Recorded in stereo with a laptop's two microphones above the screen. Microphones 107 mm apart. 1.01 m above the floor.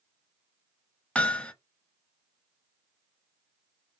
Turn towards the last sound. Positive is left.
turn(degrees=10)  # may be behind; listen again after turning